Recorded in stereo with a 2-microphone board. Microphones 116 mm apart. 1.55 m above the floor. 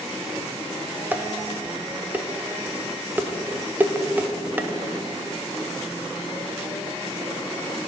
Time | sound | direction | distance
1.1 | dishes clattering | 15° right (ahead or behind) | 0.5 m